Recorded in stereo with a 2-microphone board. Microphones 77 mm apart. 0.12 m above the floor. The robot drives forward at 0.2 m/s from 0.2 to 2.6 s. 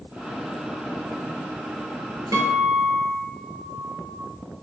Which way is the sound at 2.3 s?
50° right (ahead or behind).